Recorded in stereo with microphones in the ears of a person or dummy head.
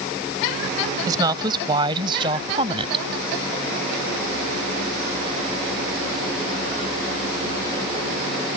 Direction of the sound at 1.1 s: 25° right (ahead or behind).